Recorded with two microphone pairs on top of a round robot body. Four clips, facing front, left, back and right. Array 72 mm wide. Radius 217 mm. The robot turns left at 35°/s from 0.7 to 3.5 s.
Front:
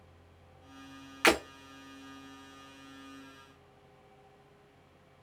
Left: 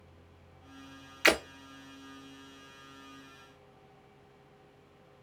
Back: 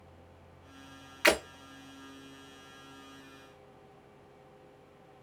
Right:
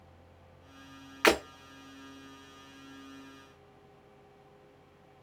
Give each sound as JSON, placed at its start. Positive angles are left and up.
{"t": 1.2, "sound": "breaking glass", "azimuth_deg": -75, "distance_m": 2.5}